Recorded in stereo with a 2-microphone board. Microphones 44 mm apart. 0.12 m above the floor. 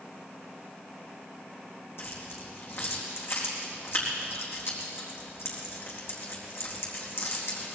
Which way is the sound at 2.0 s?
70° left (ahead or behind).